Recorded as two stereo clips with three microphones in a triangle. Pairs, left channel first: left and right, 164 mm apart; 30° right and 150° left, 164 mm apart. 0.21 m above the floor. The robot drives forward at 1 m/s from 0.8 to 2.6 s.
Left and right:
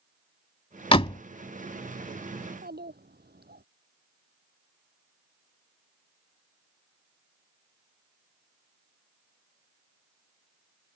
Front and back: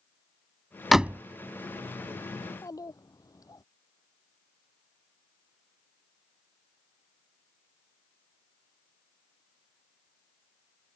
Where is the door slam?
60° left; by 1.2 s 95° left.